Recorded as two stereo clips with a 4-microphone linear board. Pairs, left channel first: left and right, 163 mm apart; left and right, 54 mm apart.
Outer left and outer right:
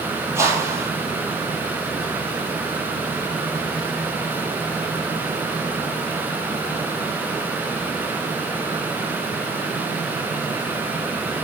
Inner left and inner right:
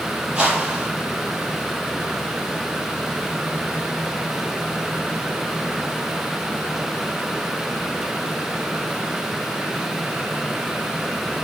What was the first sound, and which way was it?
A whoosh, 15° right (ahead or behind).